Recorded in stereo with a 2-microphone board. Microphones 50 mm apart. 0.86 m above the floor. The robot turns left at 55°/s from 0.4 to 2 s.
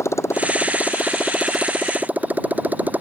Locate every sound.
0.0 s a motorcycle: 65° left (ahead or behind); by 3.0 s 30° right (ahead or behind)